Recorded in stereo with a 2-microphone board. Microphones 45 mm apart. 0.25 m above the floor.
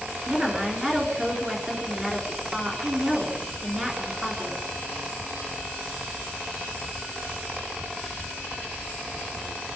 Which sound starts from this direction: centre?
A woman speaking, at 0.3 s.